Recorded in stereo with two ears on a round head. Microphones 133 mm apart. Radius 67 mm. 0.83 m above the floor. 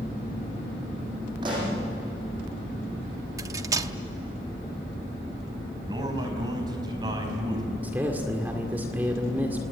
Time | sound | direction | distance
1.4 | a pop | 30° right (ahead or behind) | 8 m
3.4 | cutlery clinking | 20° right (ahead or behind) | 0.8 m
5.9 | a man speaking | 25° right (ahead or behind) | 5.5 m
7.8 | a man speaking | 10° right (ahead or behind) | 1.9 m